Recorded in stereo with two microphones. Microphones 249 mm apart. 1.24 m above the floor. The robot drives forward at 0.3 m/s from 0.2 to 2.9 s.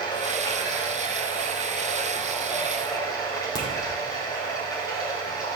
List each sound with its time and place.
0.0 s running water: 15° left (ahead or behind), 5 m
3.5 s a crack: 15° left (ahead or behind), 4.5 m